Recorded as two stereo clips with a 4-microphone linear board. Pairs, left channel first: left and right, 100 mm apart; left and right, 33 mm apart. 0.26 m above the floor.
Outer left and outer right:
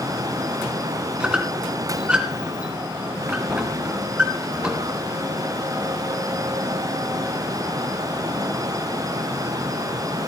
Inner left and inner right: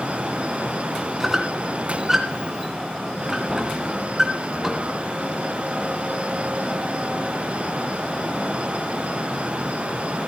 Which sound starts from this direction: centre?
A squeak, at 1.2 s.